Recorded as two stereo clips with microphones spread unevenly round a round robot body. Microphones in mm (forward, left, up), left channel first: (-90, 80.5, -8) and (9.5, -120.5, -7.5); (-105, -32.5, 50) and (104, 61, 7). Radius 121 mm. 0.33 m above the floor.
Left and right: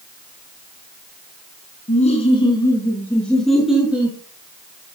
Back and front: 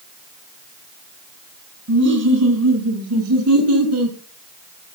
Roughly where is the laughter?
Ahead left.